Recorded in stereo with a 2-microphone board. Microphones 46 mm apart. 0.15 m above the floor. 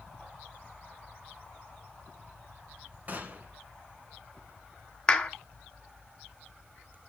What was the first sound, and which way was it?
A gunshot, 35° right (ahead or behind).